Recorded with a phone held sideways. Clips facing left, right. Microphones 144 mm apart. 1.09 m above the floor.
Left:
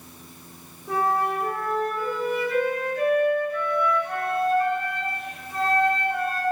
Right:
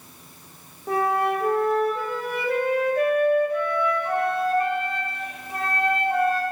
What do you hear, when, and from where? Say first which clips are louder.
0.9 s a flute: right 2 dB; 60° right (ahead or behind), 1.6 m